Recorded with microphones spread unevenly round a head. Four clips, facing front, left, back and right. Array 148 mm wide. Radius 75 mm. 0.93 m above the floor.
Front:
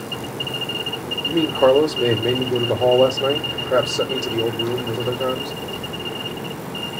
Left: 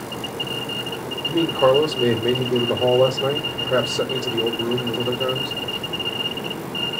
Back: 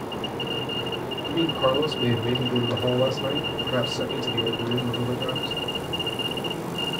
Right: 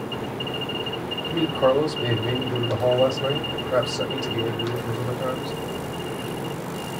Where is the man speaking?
25° left, 2 m.